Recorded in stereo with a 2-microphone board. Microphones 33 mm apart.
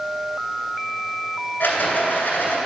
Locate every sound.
1.6 s a rattle: 85° left, 2 m